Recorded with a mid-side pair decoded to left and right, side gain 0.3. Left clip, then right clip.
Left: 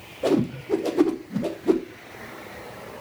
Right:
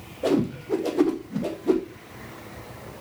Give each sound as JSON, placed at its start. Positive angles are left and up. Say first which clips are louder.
{"t": 0.2, "sound": "a whoosh", "louder": "left 1 dB", "azimuth_deg": 20, "distance_m": 0.6}